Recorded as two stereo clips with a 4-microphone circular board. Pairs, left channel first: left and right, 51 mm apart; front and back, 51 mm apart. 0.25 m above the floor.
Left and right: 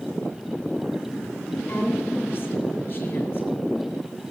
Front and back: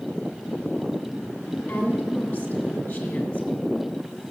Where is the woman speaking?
35° left, 3 m.